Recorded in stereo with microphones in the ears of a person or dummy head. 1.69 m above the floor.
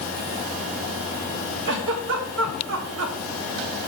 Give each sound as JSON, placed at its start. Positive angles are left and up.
{"t": 1.6, "sound": "a giggle", "side_deg": -70, "distance_m": 1.2}